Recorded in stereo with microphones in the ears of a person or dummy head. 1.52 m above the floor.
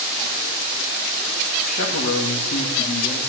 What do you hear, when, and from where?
1.6 s a man speaking: 55° left (ahead or behind), 2.5 m